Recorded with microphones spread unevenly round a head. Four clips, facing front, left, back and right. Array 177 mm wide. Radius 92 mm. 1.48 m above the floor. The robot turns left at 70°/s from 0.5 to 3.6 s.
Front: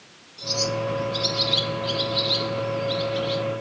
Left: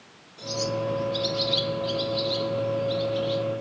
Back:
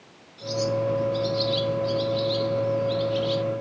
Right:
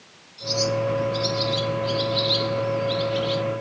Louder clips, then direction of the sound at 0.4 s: Right 4 dB, back 2 dB; 85° left.